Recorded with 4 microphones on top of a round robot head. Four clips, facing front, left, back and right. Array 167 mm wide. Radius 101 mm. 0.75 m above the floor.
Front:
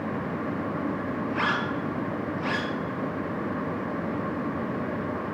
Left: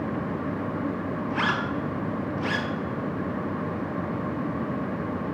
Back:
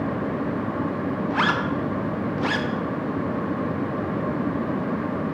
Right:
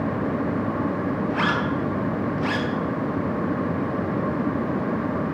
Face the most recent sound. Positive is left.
turn(degrees=175)